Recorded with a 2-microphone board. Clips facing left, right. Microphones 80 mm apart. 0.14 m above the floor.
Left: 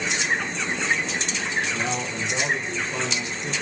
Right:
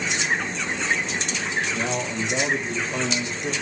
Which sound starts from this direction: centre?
A man speaking, at 1.7 s.